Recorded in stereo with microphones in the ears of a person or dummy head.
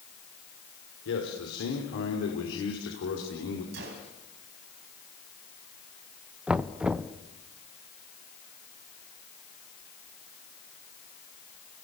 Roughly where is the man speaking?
Left.